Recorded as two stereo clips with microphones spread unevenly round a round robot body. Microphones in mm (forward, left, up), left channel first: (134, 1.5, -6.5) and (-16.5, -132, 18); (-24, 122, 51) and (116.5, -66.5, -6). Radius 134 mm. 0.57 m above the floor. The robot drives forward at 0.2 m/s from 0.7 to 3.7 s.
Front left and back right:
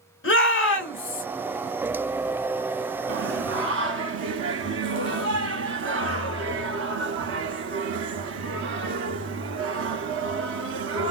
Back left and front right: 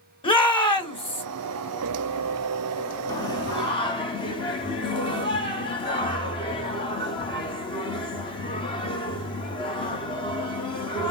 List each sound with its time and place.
0.2 s a shout: 55° left, 2 m
3.1 s singing: 150° right, 0.7 m; by 11.1 s 155° right, 0.8 m